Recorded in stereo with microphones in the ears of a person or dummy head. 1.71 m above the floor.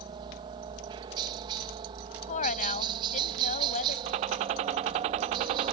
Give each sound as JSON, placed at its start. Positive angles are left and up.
{"t": 0.0, "sound": "a helicopter", "side_deg": -25}
{"t": 2.3, "sound": "a woman speaking", "side_deg": 40}
{"t": 4.1, "sound": "a gunshot", "side_deg": -25}